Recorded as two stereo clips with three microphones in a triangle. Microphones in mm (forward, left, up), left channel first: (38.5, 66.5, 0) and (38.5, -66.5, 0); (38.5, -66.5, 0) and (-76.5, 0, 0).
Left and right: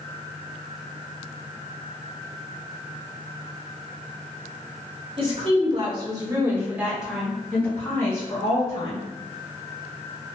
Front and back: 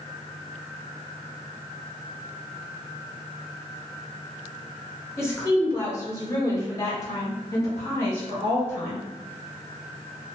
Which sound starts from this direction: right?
A woman speaking, at 5.2 s.